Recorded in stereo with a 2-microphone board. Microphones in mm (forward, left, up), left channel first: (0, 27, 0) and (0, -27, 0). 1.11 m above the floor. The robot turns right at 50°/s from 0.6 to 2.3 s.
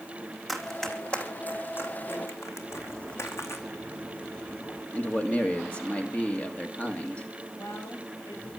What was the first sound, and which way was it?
Running footsteps, centre (ahead or behind).